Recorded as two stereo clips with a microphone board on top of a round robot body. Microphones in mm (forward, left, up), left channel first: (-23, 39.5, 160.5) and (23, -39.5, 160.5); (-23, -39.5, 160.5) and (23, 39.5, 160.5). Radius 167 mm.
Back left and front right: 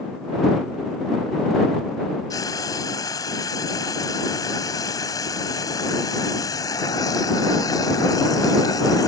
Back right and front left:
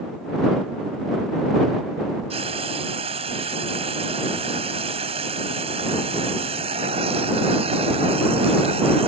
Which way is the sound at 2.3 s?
70° left.